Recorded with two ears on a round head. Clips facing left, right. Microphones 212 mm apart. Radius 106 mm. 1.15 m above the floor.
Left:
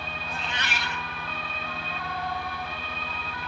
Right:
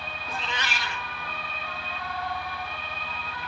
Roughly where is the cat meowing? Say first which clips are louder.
Right 2 dB; right.